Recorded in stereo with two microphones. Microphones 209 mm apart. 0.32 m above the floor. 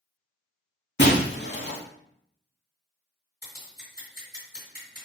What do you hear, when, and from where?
1.0 s breaking glass: 60° left (ahead or behind), 0.6 m
3.4 s scissors: 50° left (ahead or behind), 1.9 m